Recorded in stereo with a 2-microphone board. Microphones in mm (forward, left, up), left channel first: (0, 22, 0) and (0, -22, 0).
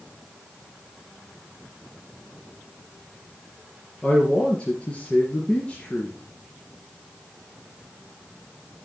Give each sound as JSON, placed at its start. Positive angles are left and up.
{"t": 4.0, "sound": "a man speaking", "side_deg": 25, "distance_m": 2.5}